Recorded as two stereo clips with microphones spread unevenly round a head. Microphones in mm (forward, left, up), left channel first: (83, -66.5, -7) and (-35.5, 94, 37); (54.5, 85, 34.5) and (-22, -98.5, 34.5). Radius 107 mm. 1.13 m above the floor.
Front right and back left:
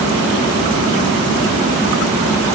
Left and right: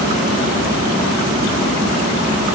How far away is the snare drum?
I don't hear a snare drum.